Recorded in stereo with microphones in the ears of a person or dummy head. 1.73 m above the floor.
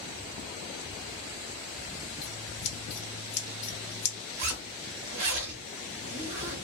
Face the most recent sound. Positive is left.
turn(degrees=-50)  # may be behind; listen again after turning